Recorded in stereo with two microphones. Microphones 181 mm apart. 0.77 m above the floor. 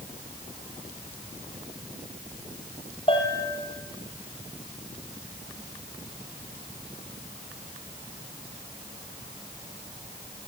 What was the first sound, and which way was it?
A bell, 30° left (ahead or behind).